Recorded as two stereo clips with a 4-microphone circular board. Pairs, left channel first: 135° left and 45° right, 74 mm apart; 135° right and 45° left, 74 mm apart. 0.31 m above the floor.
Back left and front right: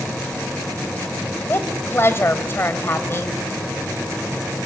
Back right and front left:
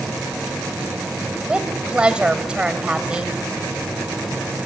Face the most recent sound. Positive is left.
turn(degrees=110)